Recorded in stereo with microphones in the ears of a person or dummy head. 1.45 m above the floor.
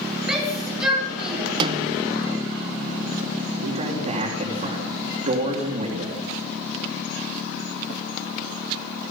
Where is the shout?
Centre (ahead or behind), 8 m.